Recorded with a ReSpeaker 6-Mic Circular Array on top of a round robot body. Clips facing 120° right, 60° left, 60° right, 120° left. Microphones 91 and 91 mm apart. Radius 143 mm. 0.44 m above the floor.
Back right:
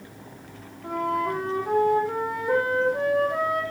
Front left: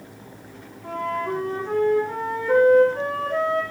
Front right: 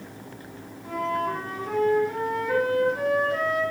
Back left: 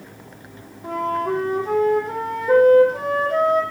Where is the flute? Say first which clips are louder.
Back right 1 dB, back left 4 dB; 160° left, 5.5 m.